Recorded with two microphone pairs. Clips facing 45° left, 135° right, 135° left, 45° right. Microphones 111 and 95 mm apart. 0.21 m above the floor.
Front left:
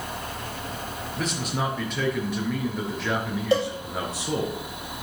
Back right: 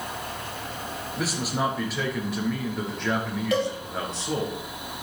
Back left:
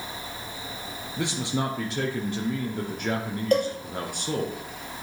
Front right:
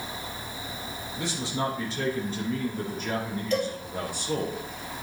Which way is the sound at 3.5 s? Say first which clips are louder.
Front left 2 dB, back left 5 dB; 100° left.